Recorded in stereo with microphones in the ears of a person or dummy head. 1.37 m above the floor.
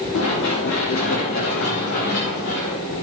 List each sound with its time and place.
0.1 s running footsteps: 65° left (ahead or behind), 7.5 m; by 2.8 s 60° left (ahead or behind), 9.5 m